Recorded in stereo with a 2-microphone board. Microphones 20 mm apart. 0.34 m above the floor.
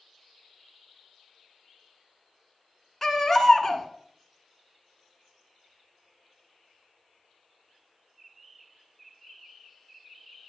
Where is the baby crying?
10° left (ahead or behind), 1.4 m.